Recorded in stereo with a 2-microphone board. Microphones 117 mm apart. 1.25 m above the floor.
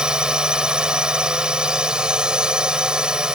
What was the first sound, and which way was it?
A drone, 5° right (ahead or behind).